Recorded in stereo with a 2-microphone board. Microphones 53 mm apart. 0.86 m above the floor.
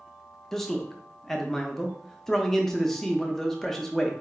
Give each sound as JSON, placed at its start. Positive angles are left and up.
{"t": 0.5, "sound": "a man speaking", "side_deg": 10, "distance_m": 0.5}